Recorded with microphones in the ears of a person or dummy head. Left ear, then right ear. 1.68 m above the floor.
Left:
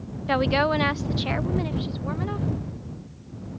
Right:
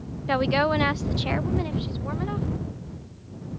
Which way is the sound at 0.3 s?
Centre (ahead or behind).